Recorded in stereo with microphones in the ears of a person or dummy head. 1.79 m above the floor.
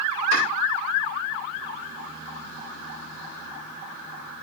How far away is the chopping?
About 6 m.